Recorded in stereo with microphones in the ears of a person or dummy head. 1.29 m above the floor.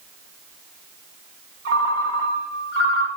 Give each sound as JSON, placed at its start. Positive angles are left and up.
{"t": 1.6, "sound": "a ringtone", "side_deg": -80, "distance_m": 1.7}